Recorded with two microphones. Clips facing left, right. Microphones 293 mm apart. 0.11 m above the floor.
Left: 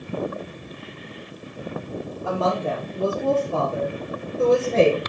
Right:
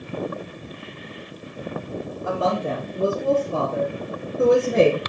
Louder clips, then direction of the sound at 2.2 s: Even; 20° right (ahead or behind).